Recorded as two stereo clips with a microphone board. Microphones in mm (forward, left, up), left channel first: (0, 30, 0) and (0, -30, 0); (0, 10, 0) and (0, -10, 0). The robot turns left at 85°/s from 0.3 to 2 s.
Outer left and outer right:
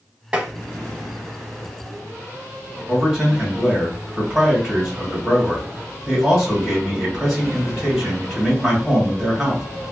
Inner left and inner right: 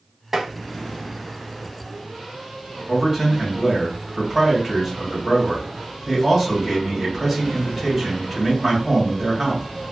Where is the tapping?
20° right (ahead or behind), 0.6 m; by 0.5 s 5° right (ahead or behind), 0.6 m.